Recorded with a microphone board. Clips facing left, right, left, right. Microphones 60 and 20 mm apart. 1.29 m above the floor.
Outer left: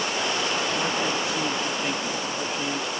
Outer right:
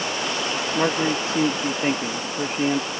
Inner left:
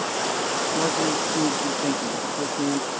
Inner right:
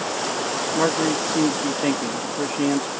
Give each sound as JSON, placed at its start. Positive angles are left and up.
{"t": 0.8, "sound": "a man speaking", "side_deg": -40}